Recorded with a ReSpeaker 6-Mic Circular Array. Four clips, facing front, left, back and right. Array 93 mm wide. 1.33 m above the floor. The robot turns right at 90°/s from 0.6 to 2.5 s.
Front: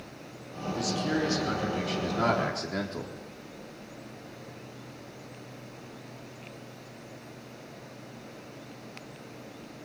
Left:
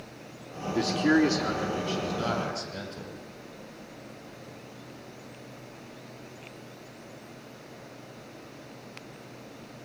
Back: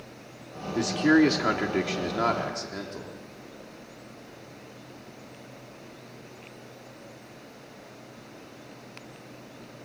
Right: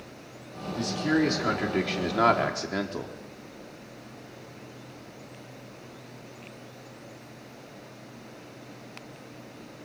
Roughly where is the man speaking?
Behind left.